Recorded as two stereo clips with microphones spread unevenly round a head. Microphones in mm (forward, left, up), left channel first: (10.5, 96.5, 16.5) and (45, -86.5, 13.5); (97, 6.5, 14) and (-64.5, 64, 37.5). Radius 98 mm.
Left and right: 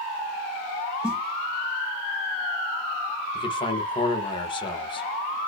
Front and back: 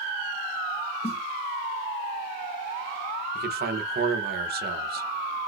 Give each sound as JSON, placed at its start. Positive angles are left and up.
{"t": 1.0, "sound": "a snare drum", "azimuth_deg": 5, "distance_m": 1.9}
{"t": 3.4, "sound": "a man speaking", "azimuth_deg": 160, "distance_m": 1.0}